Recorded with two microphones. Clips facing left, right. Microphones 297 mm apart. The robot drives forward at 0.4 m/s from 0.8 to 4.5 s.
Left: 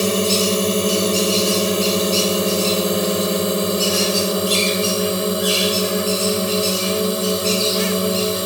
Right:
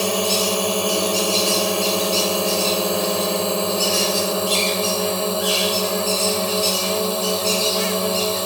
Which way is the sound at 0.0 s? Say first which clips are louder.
Left 4 dB; 20° left (ahead or behind).